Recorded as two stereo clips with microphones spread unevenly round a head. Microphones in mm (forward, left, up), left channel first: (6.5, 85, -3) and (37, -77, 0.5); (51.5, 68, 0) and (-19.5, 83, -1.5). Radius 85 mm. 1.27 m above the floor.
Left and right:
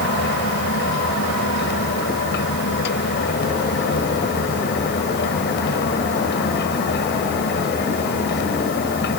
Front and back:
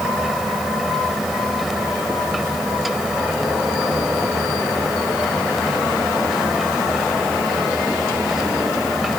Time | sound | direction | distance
0.0 | a fan | 80° left | ?